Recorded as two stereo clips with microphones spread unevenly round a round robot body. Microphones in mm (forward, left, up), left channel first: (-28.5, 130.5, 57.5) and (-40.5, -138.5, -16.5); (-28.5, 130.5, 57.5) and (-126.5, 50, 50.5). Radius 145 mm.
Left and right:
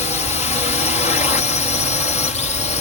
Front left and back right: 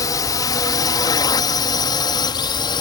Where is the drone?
15° left.